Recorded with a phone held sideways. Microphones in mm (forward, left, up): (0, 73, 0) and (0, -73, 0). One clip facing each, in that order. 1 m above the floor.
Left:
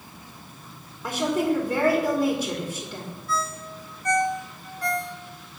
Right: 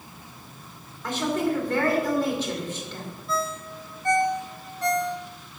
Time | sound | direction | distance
1.0 | a woman speaking | 10° left (ahead or behind) | 3 m
3.3 | a ringtone | 25° right (ahead or behind) | 1.0 m